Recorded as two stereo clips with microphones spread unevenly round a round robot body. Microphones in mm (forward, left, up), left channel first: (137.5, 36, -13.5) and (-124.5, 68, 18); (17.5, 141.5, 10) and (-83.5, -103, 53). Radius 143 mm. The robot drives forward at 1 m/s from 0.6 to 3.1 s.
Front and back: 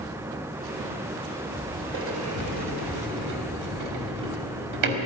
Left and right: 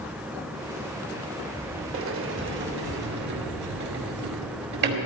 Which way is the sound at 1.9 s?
145° right.